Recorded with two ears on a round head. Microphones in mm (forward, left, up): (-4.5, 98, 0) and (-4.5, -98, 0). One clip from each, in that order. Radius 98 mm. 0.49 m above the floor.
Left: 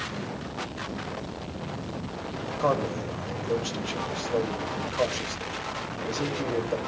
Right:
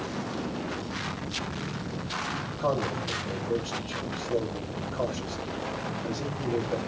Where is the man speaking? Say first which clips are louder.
Left 3 dB; 65° left (ahead or behind), 2.5 m.